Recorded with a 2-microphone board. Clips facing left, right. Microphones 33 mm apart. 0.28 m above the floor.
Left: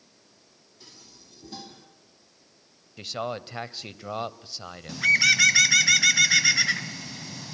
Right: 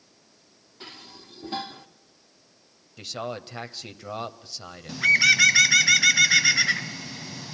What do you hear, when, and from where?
0.8 s dishes clattering: 45° right (ahead or behind), 1.5 m
3.0 s a man speaking: 10° left (ahead or behind), 1.0 m
4.9 s a bird: 5° right (ahead or behind), 0.5 m